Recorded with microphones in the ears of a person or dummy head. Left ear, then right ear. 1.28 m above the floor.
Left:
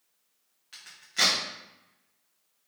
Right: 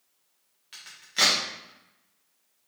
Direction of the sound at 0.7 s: 10° right (ahead or behind).